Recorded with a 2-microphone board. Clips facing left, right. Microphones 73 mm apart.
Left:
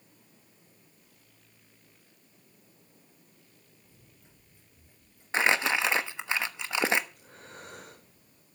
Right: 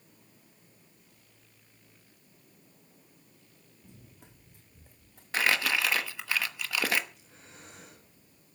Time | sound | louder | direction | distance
3.8 | running footsteps | right 5 dB | 80° right | 4 m
5.3 | crumpling | left 2 dB | 25° left (ahead or behind) | 1.1 m
7.1 | breathing | left 6 dB | 55° left (ahead or behind) | 3.5 m